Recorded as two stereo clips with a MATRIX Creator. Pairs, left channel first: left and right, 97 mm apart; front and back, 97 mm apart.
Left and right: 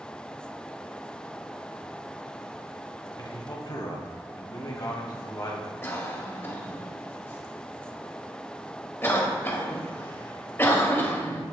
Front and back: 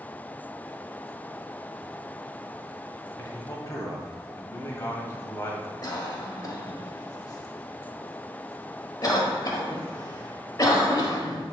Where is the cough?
30° left, 1.6 m.